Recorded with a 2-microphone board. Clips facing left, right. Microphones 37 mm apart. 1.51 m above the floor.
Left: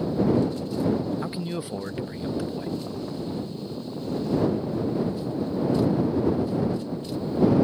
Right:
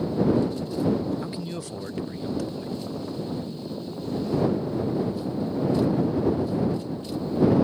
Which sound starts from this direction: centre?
A man speaking, at 1.2 s.